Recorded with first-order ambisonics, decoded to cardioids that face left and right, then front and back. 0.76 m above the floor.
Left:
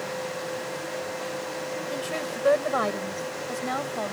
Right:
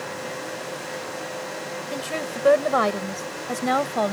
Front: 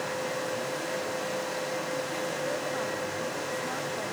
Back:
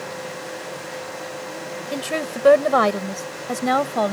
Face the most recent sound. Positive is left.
turn(degrees=-150)